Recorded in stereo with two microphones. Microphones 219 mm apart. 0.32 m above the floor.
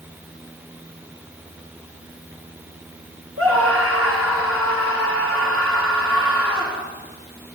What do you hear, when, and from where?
3.4 s a scream: 75° right (ahead or behind), 4.5 m